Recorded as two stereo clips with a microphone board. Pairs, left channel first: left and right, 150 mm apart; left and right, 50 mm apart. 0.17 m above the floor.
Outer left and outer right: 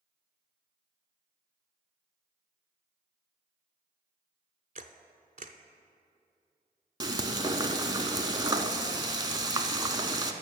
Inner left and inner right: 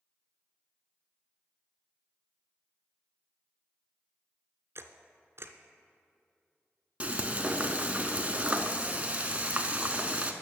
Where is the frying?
30° right (ahead or behind), 0.6 m.